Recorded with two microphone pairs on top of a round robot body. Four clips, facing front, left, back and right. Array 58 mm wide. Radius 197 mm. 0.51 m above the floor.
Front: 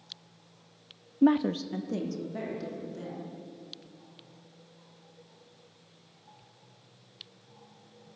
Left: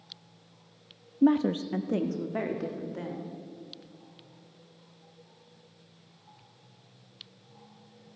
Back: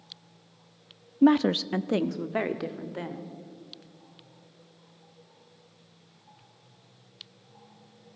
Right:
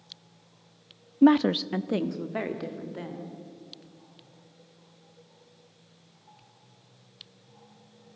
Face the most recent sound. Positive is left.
turn(degrees=-175)